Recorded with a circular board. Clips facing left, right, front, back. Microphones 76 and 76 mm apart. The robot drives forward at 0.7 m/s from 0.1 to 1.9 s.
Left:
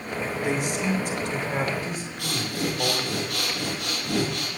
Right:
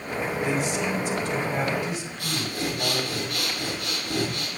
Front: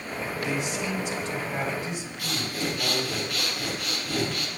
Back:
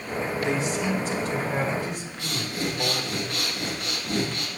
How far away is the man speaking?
About 3 m.